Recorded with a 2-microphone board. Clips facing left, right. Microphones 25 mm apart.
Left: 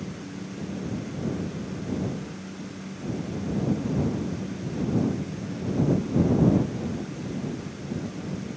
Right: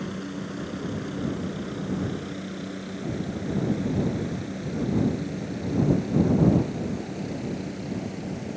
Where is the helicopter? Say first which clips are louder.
Right 3 dB; 65° right (ahead or behind).